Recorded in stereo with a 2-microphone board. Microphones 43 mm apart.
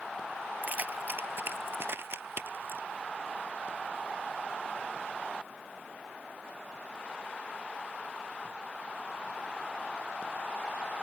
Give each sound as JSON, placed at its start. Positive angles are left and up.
{"t": 0.6, "sound": "keys jangling", "side_deg": -40}